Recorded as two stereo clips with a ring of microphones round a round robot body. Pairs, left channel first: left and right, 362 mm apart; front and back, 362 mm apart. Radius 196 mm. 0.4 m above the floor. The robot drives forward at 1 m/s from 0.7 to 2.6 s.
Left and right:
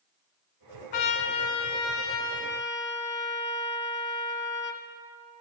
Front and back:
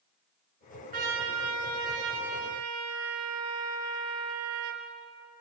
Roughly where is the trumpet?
Left.